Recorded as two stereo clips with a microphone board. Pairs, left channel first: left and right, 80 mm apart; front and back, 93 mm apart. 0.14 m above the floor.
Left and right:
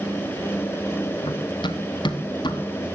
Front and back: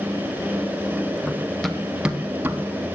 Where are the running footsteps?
75° left, 1.8 m; by 2.9 s 115° left, 2.5 m.